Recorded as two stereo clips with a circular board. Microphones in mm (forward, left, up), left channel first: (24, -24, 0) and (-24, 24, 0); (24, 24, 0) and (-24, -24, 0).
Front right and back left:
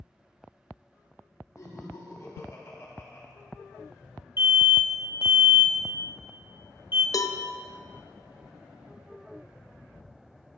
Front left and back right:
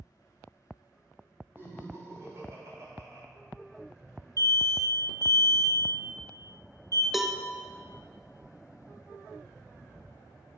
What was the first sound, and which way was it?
Laughter, 80° right.